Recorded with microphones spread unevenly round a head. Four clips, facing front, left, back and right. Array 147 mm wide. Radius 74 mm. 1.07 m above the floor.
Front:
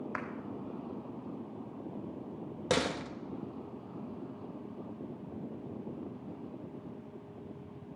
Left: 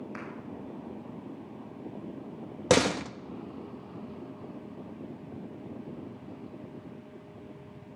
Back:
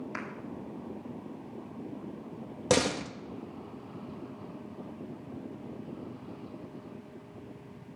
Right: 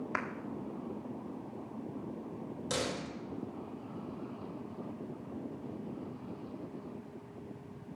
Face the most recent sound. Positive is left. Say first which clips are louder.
# left 13 dB, back 5 dB
turn(degrees=115)